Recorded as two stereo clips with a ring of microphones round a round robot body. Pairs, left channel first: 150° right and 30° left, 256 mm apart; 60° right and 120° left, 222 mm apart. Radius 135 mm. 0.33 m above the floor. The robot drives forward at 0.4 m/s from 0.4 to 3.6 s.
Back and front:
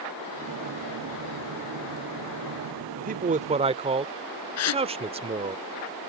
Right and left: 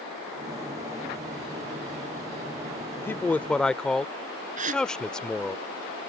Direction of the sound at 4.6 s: Straight behind.